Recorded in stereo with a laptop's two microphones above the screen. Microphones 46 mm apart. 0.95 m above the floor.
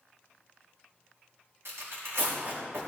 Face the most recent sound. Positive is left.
turn(degrees=-70)  # may be behind; listen again after turning